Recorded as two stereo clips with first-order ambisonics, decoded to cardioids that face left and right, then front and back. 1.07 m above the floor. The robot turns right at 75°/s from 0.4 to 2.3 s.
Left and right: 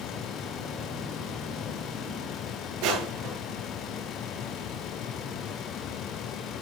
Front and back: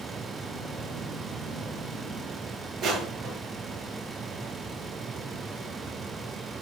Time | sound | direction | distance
2.8 | crushing | 120° right | 5.5 m